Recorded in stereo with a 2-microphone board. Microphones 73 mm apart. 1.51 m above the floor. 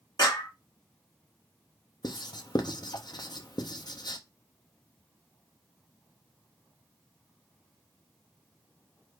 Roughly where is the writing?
Left.